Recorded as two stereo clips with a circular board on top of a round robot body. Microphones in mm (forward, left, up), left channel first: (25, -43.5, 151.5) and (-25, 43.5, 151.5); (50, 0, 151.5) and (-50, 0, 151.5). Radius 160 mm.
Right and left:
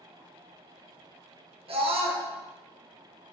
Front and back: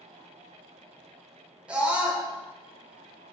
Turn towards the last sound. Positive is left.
turn(degrees=100)